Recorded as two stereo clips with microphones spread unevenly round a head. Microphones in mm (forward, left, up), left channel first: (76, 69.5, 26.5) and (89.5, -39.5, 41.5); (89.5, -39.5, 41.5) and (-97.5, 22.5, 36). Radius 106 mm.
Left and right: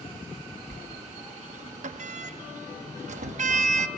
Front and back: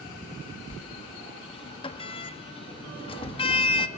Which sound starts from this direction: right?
A sliding door, at 0.7 s.